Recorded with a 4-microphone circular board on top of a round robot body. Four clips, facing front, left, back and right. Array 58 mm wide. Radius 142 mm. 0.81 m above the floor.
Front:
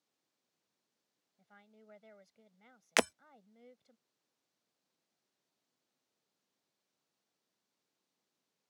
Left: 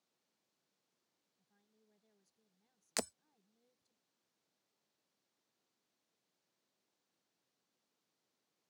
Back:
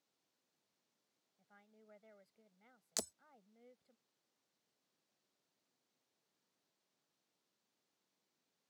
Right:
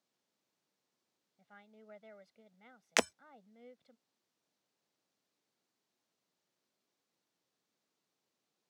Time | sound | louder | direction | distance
1.4 | a woman speaking | right 19 dB, front 5 dB | 70° right | ?
3.0 | breaking glass | right 10 dB, front 17 dB | 30° right | ?